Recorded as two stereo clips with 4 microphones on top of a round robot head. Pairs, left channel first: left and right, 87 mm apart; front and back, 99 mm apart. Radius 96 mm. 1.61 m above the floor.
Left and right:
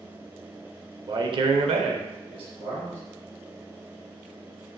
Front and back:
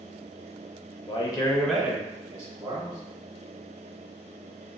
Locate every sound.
1.1 s a man speaking: 40° right, 0.5 m; by 3.0 s 135° right, 0.9 m